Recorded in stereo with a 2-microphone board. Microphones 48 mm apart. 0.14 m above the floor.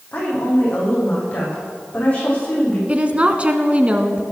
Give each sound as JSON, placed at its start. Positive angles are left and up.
{"t": 0.1, "sound": "a woman speaking", "side_deg": 30, "distance_m": 6.5}
{"t": 2.9, "sound": "a woman speaking", "side_deg": -25, "distance_m": 1.2}